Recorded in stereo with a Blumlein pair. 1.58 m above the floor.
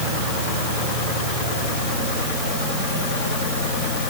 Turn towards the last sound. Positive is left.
No sound to turn to.